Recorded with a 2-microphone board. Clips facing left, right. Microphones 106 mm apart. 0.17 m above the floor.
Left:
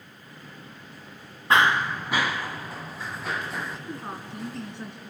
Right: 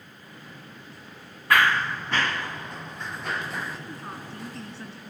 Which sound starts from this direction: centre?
A woman speaking, at 3.9 s.